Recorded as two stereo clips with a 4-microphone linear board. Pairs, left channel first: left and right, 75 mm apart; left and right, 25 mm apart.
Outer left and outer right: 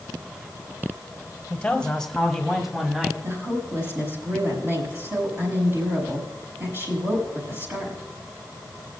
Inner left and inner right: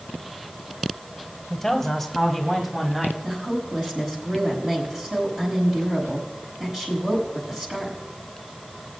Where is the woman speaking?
30° right (ahead or behind), 4.5 m.